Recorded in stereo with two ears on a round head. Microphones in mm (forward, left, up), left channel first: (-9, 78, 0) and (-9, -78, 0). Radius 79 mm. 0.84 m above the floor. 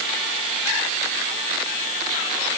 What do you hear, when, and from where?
Only background noise.